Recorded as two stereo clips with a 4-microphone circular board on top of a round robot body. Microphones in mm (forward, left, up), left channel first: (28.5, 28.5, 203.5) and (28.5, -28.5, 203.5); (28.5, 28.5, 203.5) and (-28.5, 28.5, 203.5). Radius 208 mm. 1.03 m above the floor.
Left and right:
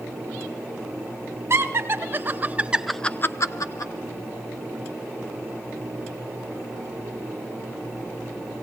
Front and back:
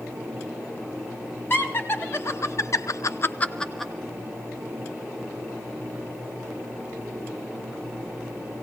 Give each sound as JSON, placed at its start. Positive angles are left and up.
{"t": 1.5, "sound": "laughter", "azimuth_deg": -50, "distance_m": 2.5}